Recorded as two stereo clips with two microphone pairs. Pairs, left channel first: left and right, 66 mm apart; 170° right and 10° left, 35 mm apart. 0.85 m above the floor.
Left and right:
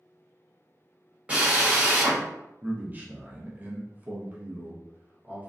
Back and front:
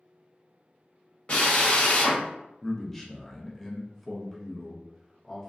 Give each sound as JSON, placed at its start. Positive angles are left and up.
{"t": 1.3, "sound": "a drill", "azimuth_deg": -145, "distance_m": 1.0}
{"t": 2.6, "sound": "a man speaking", "azimuth_deg": -95, "distance_m": 0.6}